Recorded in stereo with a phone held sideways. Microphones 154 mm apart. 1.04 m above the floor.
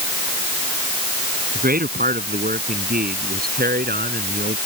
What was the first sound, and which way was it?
A man speaking, 75° right (ahead or behind).